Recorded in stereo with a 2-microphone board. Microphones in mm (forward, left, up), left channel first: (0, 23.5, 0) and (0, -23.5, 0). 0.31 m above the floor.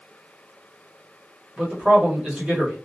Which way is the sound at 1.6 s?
25° right (ahead or behind).